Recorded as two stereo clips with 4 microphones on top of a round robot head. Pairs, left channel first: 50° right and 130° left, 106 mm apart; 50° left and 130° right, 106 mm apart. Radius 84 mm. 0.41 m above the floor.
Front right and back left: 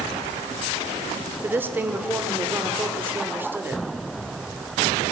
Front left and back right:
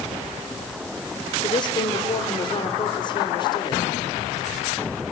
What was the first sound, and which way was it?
A woman speaking, 65° left.